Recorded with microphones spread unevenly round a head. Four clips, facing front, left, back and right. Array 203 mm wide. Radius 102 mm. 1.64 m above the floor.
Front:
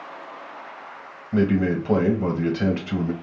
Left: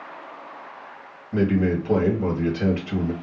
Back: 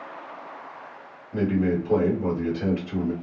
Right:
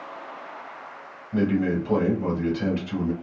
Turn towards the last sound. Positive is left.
turn(degrees=15)